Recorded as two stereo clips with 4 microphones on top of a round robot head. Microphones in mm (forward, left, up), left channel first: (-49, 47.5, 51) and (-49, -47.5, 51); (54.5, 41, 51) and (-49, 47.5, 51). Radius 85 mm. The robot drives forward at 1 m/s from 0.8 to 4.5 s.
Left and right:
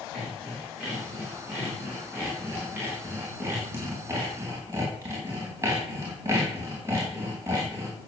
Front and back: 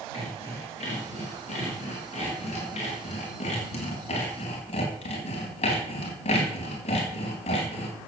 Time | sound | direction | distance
0.1 | sawing | 10° right | 7.5 m